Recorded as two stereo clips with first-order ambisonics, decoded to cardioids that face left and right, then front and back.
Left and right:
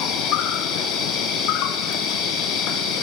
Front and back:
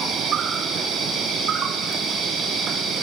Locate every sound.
0.0 s an insect: 120° left, 1.5 m